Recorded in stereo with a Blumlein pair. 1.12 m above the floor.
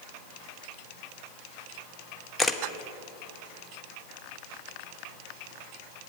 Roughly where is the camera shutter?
Ahead.